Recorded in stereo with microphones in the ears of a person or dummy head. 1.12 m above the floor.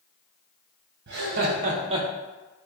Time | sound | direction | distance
1.1 | laughter | 55° right (ahead or behind) | 0.9 m